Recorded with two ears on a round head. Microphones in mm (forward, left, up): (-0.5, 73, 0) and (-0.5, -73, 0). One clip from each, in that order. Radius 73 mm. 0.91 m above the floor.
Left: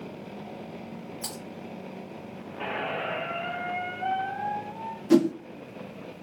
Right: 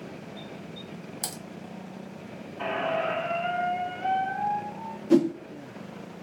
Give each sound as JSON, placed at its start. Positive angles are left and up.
{"t": 1.2, "sound": "typing on a keyboard", "side_deg": -65, "distance_m": 1.3}
{"t": 2.6, "sound": "a squeak", "side_deg": -25, "distance_m": 2.5}
{"t": 5.1, "sound": "a whoosh", "side_deg": 25, "distance_m": 0.6}